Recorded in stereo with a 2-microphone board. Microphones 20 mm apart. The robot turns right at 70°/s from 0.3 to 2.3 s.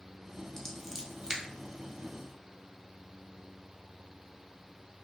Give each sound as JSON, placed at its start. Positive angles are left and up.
{"t": 0.6, "sound": "scissors", "side_deg": 15, "distance_m": 0.7}